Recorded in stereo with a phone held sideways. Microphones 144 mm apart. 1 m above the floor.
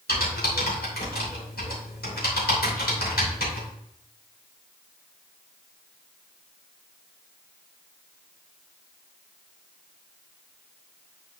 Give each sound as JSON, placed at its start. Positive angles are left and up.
{"t": 0.1, "sound": "typing on a keyboard", "side_deg": 85, "distance_m": 3.0}